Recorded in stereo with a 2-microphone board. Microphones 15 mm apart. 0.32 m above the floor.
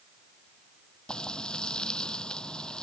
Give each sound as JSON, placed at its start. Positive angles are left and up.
{"t": 1.1, "sound": "frying", "side_deg": 85}